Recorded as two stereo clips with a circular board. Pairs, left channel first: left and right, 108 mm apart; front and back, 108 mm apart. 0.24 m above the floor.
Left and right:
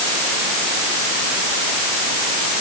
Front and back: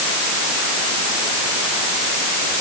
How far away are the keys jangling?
No keys jangling in this recording.